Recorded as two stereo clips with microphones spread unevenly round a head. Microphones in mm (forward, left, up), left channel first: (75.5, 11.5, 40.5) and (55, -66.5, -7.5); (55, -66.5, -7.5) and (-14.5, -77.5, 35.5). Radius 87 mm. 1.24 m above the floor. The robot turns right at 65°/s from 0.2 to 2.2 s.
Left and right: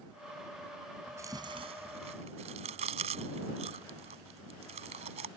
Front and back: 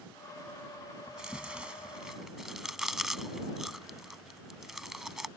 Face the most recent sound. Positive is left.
turn(degrees=-135)